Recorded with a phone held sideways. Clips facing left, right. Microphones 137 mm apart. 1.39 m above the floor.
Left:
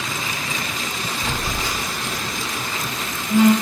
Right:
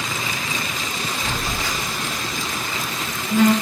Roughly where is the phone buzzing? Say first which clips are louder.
Left 2 dB; left.